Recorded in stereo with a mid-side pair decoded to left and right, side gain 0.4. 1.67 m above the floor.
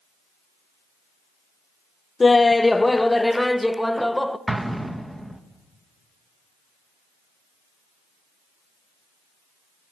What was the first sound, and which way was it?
Laughter, 30° left.